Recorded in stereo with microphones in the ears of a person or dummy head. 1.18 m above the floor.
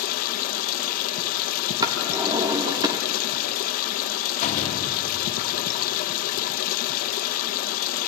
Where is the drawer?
20° right (ahead or behind), 1.2 m.